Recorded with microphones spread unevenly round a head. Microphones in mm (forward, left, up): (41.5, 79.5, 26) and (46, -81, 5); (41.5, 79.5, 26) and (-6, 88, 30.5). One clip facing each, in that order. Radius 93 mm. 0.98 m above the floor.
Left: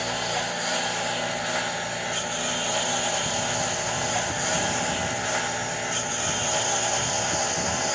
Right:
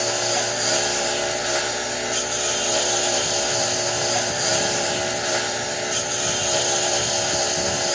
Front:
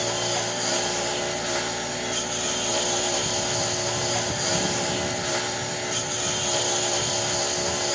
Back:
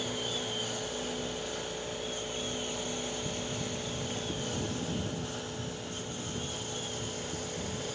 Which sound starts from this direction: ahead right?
A lawn mower, at 0.0 s.